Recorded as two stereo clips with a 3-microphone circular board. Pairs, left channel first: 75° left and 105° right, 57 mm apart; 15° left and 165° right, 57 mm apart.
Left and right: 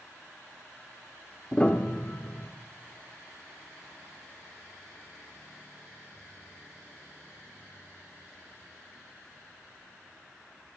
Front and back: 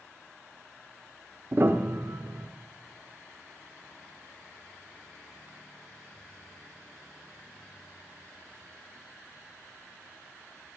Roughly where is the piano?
Behind left.